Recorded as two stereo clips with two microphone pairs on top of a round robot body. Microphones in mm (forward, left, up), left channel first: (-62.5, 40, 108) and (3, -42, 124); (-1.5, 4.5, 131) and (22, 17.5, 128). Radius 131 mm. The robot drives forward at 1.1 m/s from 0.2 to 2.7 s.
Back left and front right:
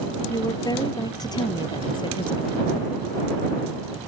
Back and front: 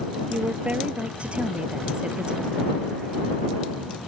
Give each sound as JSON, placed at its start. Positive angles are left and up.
{"t": 0.3, "sound": "a woman speaking", "azimuth_deg": 70}